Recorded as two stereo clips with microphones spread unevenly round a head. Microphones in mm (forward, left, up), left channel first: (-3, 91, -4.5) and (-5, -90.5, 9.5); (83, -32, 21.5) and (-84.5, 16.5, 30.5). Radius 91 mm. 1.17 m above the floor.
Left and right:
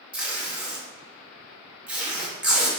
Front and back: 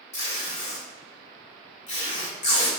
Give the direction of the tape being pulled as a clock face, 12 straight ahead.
1 o'clock.